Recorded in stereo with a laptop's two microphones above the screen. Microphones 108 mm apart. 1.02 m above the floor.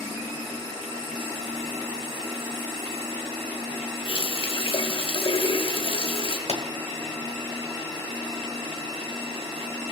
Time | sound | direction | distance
4.0 | a running tap | 60° left (ahead or behind) | 1.0 m
6.5 | a pop | 70° left (ahead or behind) | 1.5 m